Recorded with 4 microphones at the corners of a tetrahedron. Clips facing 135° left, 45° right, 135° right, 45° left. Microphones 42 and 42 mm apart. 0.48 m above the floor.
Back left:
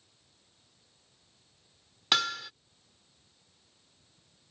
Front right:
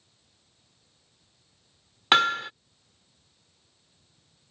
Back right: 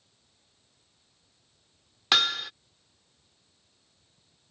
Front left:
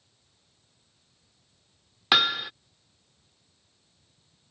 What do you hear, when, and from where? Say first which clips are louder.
2.1 s hammering: front right 8 dB, front left 2 dB; 25° right